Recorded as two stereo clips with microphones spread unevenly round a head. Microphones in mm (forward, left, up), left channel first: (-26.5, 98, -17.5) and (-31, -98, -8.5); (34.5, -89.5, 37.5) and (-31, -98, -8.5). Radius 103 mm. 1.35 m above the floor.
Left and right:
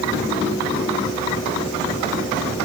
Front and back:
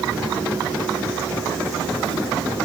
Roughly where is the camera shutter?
I don't hear a camera shutter.